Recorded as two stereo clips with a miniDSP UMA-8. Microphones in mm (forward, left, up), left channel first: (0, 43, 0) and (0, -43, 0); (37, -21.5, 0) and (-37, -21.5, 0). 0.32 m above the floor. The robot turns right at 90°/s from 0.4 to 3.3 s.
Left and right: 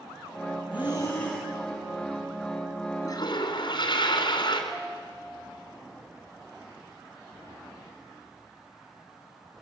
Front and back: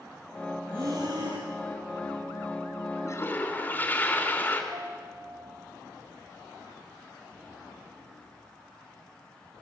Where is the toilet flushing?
35° left, 3 m; by 4.6 s 60° left, 3 m.